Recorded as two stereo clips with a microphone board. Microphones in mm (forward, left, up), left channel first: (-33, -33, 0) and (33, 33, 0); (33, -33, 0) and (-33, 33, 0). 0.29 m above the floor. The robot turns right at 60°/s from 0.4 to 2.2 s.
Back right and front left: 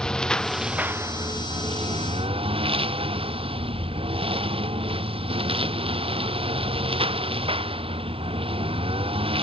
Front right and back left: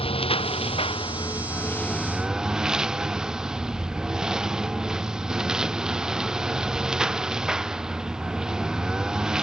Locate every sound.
0.0 s a lawn mower: 55° right; by 9.4 s 55° left